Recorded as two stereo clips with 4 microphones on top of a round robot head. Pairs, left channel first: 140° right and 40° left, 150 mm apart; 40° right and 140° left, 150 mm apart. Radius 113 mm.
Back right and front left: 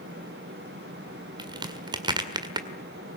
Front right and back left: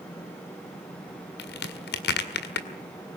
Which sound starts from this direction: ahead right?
A crack, at 1.4 s.